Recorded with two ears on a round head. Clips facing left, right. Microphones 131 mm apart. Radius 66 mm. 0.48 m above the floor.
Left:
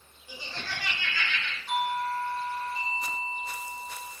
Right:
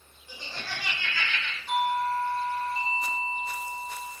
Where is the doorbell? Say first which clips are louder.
Right 3 dB; centre (ahead or behind), 1.3 m.